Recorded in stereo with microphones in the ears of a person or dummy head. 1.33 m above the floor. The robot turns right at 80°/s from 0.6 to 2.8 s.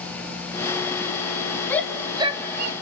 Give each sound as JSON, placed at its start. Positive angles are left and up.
{"t": 1.7, "sound": "a shout", "side_deg": 15, "distance_m": 1.4}